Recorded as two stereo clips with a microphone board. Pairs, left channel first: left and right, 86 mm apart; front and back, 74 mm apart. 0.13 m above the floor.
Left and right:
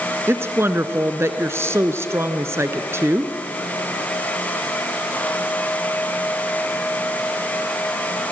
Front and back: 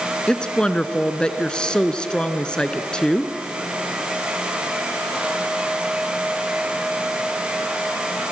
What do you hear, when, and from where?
0.3 s a woman speaking: 70° right, 1.3 m